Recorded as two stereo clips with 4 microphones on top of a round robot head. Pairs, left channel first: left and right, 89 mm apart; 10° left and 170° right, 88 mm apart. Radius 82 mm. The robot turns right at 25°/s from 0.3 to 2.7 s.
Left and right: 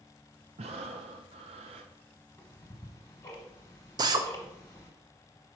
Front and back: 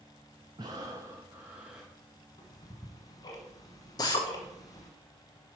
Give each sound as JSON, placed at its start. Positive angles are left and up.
{"t": 0.6, "sound": "breathing", "azimuth_deg": -115, "distance_m": 0.6}
{"t": 2.4, "sound": "ticking", "azimuth_deg": 30, "distance_m": 1.2}
{"t": 4.0, "sound": "a drill", "azimuth_deg": -50, "distance_m": 0.8}